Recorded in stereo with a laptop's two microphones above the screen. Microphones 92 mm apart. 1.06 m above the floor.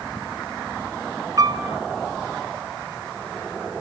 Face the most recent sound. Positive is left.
turn(degrees=-35)  # may be behind; listen again after turning